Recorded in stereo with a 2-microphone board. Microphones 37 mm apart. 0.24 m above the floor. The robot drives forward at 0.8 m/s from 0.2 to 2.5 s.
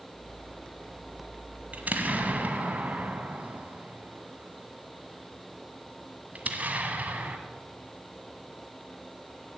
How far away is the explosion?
About 1.5 m.